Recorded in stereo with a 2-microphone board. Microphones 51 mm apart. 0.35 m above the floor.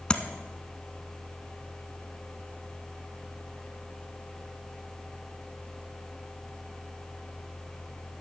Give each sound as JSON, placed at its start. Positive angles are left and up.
{"t": 0.1, "sound": "tapping", "side_deg": 20, "distance_m": 0.8}